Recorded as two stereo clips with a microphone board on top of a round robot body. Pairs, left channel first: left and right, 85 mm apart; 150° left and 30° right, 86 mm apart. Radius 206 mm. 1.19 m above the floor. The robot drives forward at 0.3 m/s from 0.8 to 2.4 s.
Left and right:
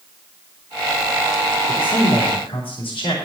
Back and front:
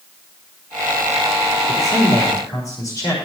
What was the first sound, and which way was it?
A man speaking, 90° left.